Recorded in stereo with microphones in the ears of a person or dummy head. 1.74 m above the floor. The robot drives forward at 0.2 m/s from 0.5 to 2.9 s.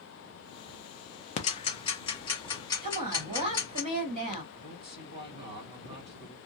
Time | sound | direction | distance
1.4 | ticking | 35° left (ahead or behind) | 0.6 m
2.8 | a woman speaking | 35° right (ahead or behind) | 1.7 m
4.5 | a man speaking | 30° right (ahead or behind) | 1.8 m